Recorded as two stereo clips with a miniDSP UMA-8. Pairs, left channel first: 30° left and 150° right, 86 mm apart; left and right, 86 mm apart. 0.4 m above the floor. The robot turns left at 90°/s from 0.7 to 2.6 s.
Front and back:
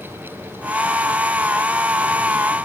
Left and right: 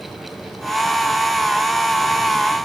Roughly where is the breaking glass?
No breaking glass in this recording.